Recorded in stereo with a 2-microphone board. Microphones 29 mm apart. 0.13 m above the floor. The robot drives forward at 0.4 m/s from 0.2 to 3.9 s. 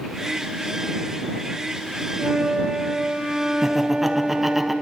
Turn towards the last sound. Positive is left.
turn(degrees=-10)  # may be behind; listen again after turning